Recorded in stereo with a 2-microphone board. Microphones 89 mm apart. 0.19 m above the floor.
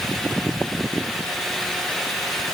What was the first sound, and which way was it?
Only background noise.